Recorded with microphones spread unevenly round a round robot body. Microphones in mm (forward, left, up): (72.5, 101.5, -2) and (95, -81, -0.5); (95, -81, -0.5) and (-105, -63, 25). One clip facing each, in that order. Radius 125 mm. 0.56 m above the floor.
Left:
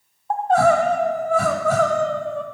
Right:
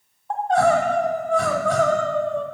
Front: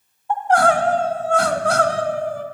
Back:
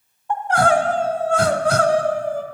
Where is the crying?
Straight behind, 0.9 m.